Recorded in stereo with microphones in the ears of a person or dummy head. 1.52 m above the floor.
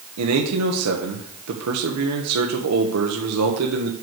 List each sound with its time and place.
0.2 s a man speaking: 80° right, 1.4 m